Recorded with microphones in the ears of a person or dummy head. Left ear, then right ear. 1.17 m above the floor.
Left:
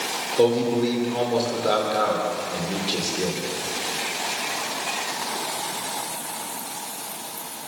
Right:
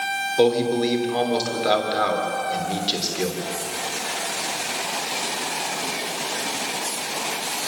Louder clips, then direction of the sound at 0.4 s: Even; 20° right (ahead or behind).